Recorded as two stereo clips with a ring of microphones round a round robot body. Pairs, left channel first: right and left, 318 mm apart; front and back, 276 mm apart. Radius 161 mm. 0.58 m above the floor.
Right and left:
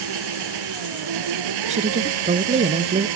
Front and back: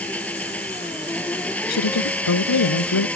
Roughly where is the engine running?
Left.